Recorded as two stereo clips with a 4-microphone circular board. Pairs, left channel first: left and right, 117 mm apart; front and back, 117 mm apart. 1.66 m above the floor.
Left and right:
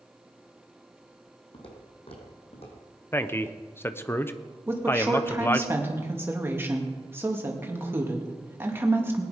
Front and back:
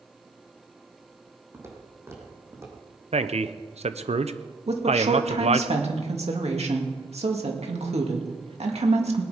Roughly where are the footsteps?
Behind left.